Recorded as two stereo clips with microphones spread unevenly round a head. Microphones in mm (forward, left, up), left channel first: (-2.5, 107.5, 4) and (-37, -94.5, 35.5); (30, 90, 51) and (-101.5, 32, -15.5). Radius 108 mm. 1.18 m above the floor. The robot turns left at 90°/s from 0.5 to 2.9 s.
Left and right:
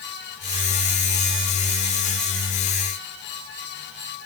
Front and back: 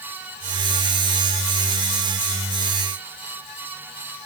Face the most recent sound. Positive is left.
No sound to turn to.